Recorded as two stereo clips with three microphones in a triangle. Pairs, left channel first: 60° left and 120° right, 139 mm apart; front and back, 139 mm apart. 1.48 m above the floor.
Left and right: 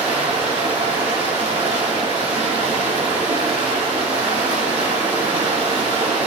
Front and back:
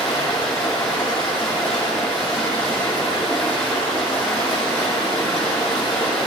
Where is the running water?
90° right, 4.5 m.